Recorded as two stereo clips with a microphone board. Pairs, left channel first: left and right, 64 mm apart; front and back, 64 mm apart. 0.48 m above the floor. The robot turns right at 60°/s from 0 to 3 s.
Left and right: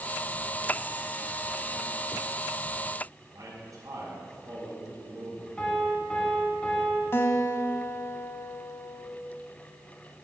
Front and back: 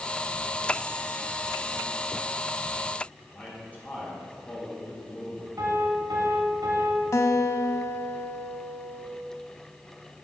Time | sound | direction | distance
3.3 | a man speaking | 70° right | 3.5 m
5.6 | a piano | 165° left | 2.5 m
7.1 | a guitar | 40° left | 0.7 m